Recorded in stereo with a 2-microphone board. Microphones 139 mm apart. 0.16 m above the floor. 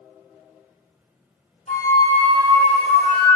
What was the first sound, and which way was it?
A flute, 65° left (ahead or behind).